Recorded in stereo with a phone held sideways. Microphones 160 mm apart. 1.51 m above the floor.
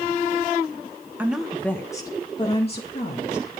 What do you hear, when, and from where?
1.2 s a woman speaking: 10° right (ahead or behind), 1.2 m; by 3.5 s 50° left (ahead or behind), 2.5 m